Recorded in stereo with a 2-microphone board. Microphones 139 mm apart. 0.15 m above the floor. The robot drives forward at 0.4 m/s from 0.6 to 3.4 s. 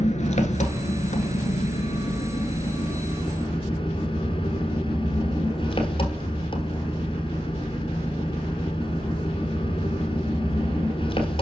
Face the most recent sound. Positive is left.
turn(degrees=40)  # may be behind; listen again after turning